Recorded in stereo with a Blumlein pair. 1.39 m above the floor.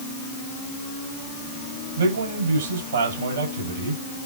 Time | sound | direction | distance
2.0 | a man speaking | 65° right | 7 m